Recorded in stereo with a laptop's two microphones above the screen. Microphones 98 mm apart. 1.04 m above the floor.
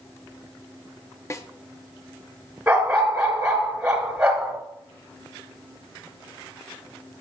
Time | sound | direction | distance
1.3 | a snare drum | 30° left (ahead or behind) | 0.7 m
2.7 | a dog barking | 15° right (ahead or behind) | 5 m